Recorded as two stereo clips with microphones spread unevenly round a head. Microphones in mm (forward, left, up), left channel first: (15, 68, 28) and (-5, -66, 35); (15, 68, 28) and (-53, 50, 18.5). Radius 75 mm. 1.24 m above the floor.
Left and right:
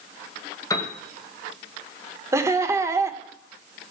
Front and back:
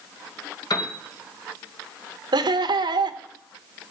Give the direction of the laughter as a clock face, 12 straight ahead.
6 o'clock.